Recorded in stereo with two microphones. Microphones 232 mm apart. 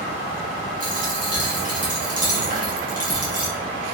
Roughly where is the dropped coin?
Right.